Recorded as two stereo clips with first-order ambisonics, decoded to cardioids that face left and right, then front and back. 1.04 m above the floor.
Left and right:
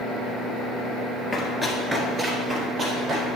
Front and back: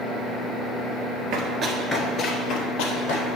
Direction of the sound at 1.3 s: 160° left.